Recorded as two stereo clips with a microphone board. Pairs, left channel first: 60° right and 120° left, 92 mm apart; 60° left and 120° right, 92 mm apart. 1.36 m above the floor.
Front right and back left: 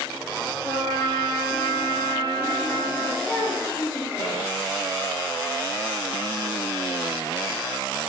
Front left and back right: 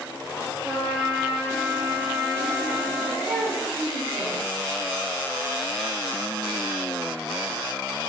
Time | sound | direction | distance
0.6 | a trumpet | 45° right | 0.9 m
3.2 | a child speaking | 25° right | 1.5 m